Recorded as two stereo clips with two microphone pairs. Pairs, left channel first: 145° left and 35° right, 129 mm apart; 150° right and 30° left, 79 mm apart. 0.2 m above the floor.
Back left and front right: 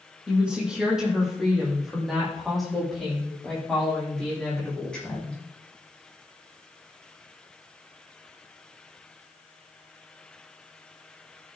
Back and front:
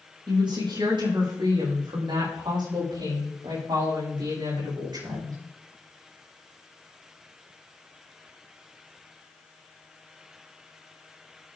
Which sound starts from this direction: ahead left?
A woman speaking, at 0.3 s.